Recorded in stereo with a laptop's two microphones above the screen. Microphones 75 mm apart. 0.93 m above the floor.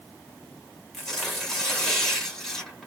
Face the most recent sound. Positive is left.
turn(degrees=5)  # may be behind; listen again after turning